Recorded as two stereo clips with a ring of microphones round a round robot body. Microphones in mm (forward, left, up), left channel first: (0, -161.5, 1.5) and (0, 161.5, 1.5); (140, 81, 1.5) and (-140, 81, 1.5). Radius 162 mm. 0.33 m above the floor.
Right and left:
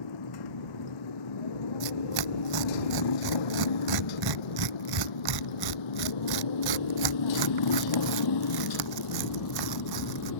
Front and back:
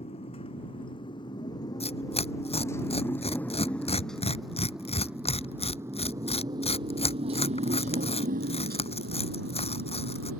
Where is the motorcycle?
75° right; by 10.4 s 130° right.